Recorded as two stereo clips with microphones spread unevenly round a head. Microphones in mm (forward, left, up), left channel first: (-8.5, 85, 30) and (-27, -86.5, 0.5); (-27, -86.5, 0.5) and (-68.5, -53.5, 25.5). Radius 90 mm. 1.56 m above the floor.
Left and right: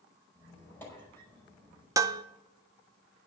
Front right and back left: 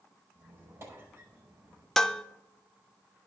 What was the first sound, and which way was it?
A squeak, 160° left.